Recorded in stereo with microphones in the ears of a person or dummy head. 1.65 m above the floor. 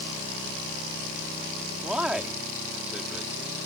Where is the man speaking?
5° right (ahead or behind).